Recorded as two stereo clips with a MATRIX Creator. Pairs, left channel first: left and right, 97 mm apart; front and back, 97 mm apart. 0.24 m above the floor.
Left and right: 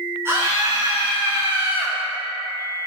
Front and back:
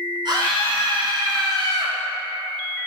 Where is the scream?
150° right, 2.5 m.